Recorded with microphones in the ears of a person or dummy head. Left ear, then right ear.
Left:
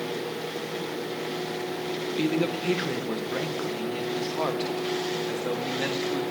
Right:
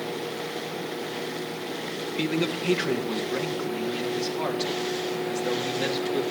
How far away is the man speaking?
About 1.9 m.